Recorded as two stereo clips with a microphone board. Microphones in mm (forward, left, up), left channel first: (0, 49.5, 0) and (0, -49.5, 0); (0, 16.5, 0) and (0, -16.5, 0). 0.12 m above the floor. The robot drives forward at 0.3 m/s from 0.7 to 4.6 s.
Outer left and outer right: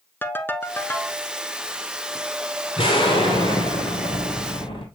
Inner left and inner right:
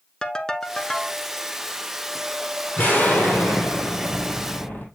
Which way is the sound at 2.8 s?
70° left (ahead or behind).